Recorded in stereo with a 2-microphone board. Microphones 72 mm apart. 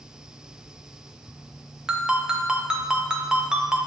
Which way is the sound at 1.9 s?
10° right (ahead or behind).